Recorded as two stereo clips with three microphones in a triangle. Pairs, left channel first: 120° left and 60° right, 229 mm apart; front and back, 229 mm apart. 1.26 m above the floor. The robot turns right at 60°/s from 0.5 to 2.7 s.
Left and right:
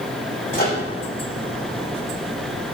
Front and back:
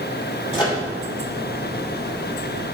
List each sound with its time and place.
0.5 s a microwave: 65° left, 2.5 m; by 0.8 s 85° left, 2.5 m